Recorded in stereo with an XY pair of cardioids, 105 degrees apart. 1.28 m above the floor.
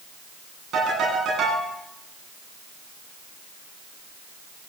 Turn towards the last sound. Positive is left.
turn(degrees=-65)